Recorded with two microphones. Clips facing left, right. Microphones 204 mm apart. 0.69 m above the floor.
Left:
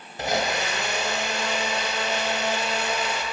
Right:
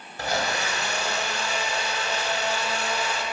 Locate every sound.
0.2 s a blender: 20° left (ahead or behind), 0.7 m